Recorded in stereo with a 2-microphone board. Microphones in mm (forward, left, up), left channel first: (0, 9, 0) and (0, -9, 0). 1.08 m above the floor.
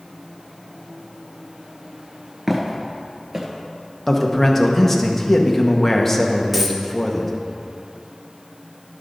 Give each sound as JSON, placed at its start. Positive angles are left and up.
{"t": 2.5, "sound": "footsteps", "side_deg": -10, "distance_m": 1.2}
{"t": 4.1, "sound": "a man speaking", "side_deg": 15, "distance_m": 0.9}
{"t": 6.5, "sound": "a dropped coin", "side_deg": 0, "distance_m": 0.8}